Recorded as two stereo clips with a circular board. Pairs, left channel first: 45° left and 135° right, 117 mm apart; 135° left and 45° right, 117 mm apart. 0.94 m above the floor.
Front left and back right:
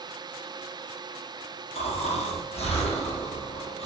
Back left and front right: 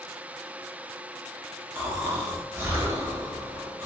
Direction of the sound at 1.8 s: 25° left.